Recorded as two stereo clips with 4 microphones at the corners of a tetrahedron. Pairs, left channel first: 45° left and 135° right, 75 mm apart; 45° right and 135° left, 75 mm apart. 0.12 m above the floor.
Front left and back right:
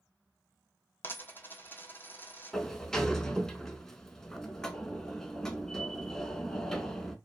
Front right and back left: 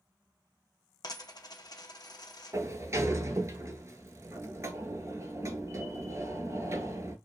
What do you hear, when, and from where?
1.0 s a dropped coin: 15° right, 0.6 m
2.5 s a sliding door: 125° left, 0.5 m